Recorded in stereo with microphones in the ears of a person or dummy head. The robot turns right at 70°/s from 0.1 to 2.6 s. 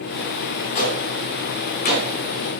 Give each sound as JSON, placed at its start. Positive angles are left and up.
{"t": 0.8, "sound": "a gunshot", "side_deg": 40, "distance_m": 2.5}